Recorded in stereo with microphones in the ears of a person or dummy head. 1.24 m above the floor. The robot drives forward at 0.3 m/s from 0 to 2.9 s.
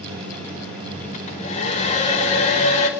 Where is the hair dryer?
35° left (ahead or behind), 3.5 m; by 2.9 s 30° left (ahead or behind), 4 m.